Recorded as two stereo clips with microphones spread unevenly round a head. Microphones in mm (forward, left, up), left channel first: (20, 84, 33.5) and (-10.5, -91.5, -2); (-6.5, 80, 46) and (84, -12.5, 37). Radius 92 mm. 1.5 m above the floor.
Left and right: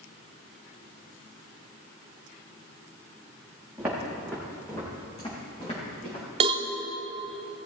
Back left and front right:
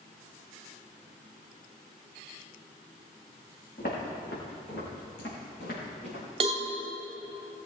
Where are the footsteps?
175° left, 4.5 m; by 6.2 s 125° left, 5 m.